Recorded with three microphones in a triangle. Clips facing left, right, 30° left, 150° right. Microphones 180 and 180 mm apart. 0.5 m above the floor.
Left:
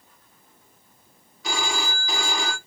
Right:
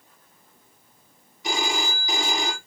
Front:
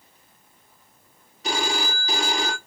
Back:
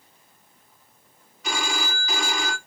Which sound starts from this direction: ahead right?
A phone ringing, at 1.4 s.